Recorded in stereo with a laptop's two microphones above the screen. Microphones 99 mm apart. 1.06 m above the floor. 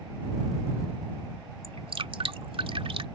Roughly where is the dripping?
Right.